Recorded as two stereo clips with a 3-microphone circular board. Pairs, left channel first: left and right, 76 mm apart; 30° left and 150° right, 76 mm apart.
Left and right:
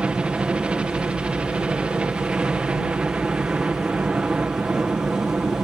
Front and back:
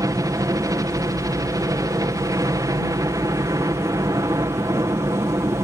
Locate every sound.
0.0 s a helicopter: 160° right